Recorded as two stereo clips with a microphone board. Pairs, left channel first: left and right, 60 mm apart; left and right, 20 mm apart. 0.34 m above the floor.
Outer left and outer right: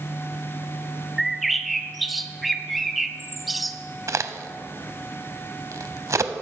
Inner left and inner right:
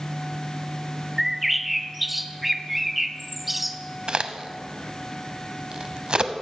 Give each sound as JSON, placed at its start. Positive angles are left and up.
{"t": 1.2, "sound": "a bird", "side_deg": 0, "distance_m": 0.5}
{"t": 4.1, "sound": "a crack", "side_deg": -55, "distance_m": 0.6}